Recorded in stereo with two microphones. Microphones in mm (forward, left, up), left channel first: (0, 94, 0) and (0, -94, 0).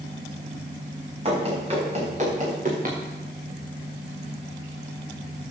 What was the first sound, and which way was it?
Running footsteps, 30° right (ahead or behind).